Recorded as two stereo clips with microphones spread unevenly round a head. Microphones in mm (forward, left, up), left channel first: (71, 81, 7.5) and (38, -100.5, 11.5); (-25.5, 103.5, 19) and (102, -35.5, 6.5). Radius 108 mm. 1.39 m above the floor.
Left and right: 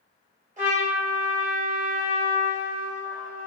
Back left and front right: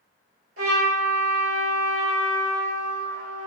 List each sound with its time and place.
0.6 s a trumpet: 45° right, 1.3 m